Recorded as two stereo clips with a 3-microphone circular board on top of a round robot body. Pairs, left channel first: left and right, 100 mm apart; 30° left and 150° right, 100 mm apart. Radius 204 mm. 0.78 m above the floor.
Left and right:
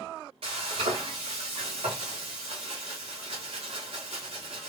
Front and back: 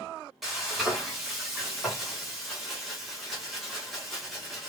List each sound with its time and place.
0.4 s frying: 60° right, 0.7 m